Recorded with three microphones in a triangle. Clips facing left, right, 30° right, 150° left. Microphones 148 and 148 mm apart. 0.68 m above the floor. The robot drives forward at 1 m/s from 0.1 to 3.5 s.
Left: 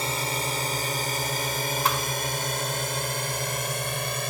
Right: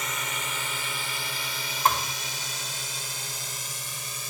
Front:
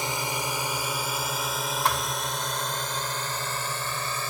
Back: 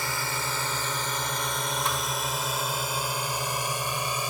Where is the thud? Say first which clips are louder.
Right 5 dB, front 3 dB; 45° right; by 2.1 s 55° right.